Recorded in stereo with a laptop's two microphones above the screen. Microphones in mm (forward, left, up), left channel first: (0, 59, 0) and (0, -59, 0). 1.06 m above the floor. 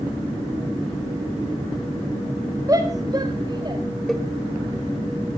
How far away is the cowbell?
About 1.7 m.